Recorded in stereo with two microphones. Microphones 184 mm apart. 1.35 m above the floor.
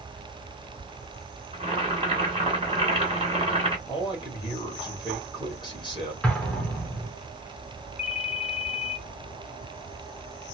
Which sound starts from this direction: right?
Boiling, at 1.5 s.